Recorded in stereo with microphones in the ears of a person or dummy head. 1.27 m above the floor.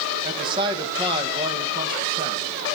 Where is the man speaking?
30° right (ahead or behind), 1.0 m.